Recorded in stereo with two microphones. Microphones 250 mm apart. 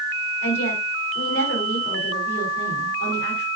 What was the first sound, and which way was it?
A woman speaking, 55° left (ahead or behind).